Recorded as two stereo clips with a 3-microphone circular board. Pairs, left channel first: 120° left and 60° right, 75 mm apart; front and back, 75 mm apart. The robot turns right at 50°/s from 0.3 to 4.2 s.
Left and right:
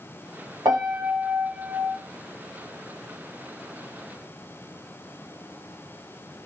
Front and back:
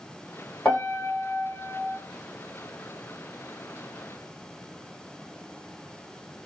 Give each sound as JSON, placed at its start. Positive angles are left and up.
{"t": 0.7, "sound": "a piano", "azimuth_deg": -75, "distance_m": 1.1}